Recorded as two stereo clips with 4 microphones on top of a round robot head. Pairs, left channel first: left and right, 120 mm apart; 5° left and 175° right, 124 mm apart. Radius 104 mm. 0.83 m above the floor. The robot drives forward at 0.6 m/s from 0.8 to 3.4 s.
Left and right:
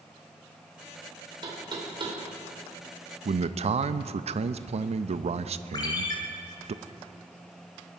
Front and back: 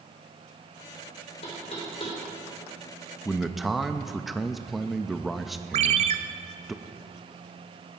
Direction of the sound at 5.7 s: 155° left.